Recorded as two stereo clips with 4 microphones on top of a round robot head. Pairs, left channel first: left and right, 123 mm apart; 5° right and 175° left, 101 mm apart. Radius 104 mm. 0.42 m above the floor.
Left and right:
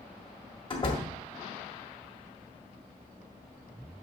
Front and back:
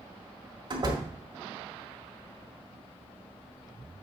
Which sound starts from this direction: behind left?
A door slam, at 0.7 s.